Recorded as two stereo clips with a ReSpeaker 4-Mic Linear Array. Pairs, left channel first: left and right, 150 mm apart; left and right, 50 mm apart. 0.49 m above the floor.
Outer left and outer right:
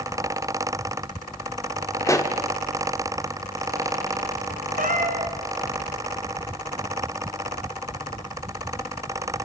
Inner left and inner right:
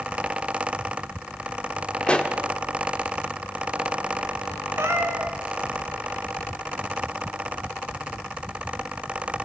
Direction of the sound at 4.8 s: 65° right (ahead or behind).